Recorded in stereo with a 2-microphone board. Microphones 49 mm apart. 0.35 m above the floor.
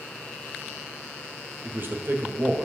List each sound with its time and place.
1.6 s a man speaking: 45° right (ahead or behind), 1.7 m